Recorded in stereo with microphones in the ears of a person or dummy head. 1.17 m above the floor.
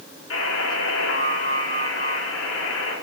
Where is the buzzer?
75° left (ahead or behind), 3.5 m.